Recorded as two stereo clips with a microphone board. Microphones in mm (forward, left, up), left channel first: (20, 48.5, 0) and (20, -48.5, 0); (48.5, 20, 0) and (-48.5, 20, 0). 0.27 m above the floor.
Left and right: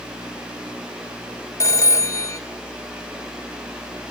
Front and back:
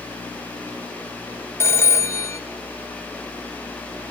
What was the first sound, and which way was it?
A phone ringing, 50° left.